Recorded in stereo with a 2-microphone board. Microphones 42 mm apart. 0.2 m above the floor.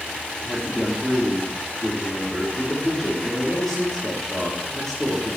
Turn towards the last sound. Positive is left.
turn(degrees=10)  # may be behind; listen again after turning